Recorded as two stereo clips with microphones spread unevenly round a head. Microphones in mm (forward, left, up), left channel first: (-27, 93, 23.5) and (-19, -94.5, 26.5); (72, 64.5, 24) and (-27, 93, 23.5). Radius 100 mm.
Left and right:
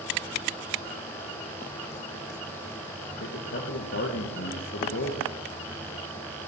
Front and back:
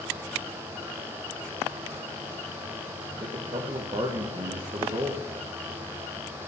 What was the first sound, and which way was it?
A man speaking, 125° left.